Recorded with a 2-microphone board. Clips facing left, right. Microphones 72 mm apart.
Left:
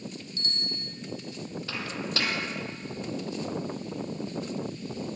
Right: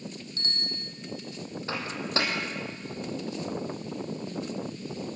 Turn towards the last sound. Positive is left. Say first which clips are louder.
# right 3 dB
turn(degrees=-30)  # may be behind; listen again after turning